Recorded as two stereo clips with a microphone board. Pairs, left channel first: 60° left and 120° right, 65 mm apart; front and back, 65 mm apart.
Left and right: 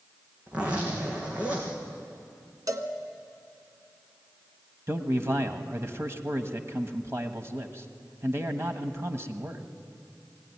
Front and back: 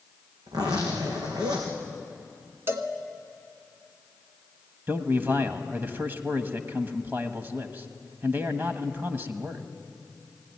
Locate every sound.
0.5 s a zipper: 170° left, 4 m
2.7 s a cowbell: 130° right, 1.4 m
4.9 s a man speaking: 135° right, 1.3 m